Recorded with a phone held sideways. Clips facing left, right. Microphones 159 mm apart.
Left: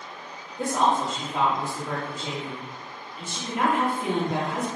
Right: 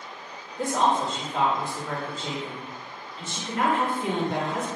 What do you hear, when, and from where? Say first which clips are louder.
0.6 s a woman speaking: even; 10° left (ahead or behind), 1.3 m